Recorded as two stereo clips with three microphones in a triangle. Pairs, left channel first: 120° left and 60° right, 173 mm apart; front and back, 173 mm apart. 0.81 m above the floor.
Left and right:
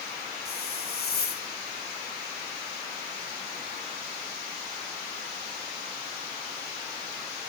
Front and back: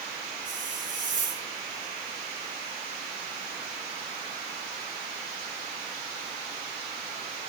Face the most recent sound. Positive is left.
turn(degrees=140)